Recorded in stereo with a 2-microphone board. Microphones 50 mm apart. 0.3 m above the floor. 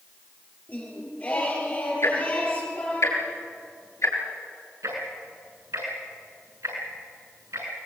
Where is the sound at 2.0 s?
75° left (ahead or behind), 5 m.